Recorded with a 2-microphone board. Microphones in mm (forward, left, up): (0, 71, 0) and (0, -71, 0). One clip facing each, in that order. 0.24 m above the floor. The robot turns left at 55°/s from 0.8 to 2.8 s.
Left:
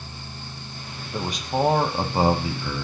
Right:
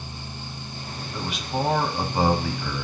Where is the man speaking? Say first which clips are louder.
Left 3 dB; 100° left, 1.3 m; by 2.9 s 5° left, 1.3 m.